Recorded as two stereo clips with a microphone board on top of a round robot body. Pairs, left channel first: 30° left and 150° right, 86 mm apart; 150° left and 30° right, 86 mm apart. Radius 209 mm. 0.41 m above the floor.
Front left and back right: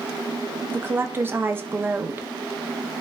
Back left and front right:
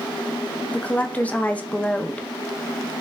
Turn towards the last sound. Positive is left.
turn(degrees=-160)